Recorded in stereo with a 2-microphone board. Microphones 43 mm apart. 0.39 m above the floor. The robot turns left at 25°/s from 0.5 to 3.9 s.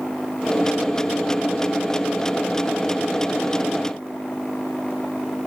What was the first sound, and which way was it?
Only background noise.